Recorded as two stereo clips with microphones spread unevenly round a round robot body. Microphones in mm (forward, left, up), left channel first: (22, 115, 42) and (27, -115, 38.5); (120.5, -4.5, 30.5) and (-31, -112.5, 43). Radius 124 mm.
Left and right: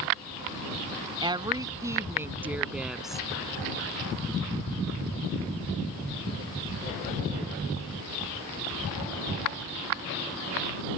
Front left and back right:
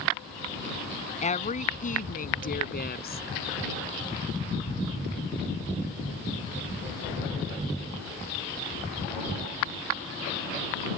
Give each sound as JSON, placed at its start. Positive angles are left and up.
{"t": 1.2, "sound": "a woman speaking", "azimuth_deg": -15}